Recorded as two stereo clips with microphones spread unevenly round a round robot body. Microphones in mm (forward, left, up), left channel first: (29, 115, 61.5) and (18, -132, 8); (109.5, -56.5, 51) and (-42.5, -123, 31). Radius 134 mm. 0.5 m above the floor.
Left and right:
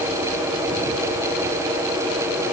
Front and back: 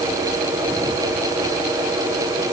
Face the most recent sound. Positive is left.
No sound to turn to.